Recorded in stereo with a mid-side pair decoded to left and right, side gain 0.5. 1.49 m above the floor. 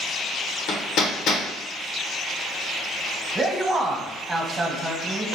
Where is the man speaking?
20° right, 1.1 m.